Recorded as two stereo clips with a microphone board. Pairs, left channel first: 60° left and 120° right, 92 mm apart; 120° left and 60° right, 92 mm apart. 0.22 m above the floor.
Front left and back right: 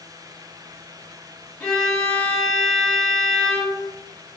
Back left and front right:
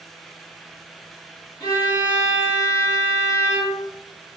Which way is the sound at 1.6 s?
135° left.